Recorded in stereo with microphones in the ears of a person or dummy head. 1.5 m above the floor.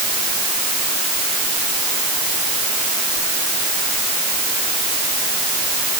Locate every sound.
Only background noise.